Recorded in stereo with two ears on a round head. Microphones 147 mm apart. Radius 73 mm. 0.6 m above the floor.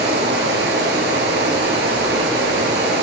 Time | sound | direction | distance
0.0 | running water | 75° right (ahead or behind) | 1.9 m